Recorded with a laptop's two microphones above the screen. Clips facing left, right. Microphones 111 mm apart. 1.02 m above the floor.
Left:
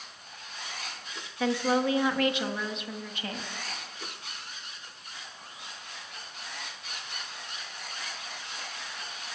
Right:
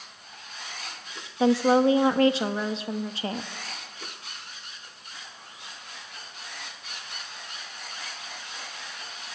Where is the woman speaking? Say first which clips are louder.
Right 7 dB; 30° right (ahead or behind), 1.1 m.